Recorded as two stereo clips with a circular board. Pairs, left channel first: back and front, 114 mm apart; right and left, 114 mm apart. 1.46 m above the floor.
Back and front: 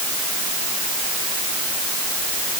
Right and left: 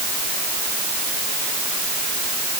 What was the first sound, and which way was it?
Only background noise.